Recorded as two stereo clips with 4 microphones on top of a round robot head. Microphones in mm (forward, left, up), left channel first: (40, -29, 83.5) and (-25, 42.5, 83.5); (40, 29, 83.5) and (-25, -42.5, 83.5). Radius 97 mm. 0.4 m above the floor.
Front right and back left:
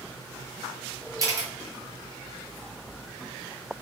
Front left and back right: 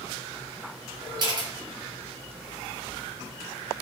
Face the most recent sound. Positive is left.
turn(degrees=-175)